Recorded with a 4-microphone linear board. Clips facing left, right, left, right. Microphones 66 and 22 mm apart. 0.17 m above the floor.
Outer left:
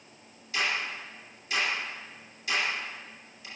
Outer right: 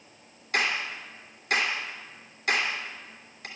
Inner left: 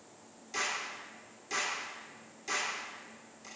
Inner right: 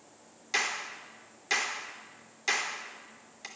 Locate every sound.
0.5 s a clap: 65° right (ahead or behind), 2.5 m